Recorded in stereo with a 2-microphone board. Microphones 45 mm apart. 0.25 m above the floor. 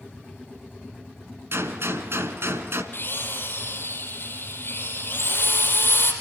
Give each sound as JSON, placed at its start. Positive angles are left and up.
{"t": 1.5, "sound": "a gunshot", "side_deg": -65, "distance_m": 1.6}
{"t": 2.9, "sound": "a drill", "side_deg": 55, "distance_m": 4.0}